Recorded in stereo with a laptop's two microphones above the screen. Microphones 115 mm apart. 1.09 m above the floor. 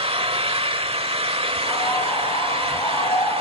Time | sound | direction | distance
0.0 | an engine running | 55° right (ahead or behind) | 1.3 m
1.6 | a bird | 55° left (ahead or behind) | 6 m